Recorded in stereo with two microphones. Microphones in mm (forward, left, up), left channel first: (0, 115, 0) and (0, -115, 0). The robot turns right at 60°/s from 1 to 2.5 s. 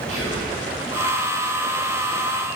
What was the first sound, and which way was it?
Whispering, 75° left (ahead or behind).